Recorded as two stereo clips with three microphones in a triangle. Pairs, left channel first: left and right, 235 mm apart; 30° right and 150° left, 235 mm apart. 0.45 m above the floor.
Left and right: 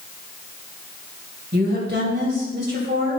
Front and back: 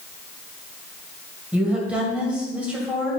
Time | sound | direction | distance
1.5 | a woman speaking | 125° right | 2.5 m